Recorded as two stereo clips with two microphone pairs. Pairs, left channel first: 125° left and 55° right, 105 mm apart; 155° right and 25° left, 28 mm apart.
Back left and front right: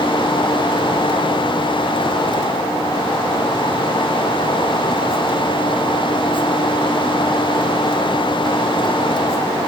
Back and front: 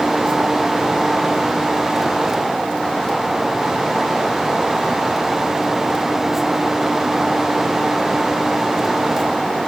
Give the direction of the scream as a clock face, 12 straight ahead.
No scream in this recording.